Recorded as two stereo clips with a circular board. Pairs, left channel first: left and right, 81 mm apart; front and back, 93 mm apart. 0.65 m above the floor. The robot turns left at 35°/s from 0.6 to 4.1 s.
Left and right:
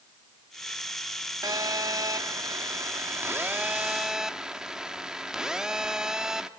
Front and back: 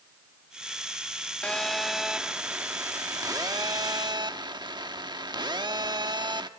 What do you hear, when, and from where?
1.4 s a phone buzzing: 75° right, 1.1 m; by 6.5 s 170° right, 1.1 m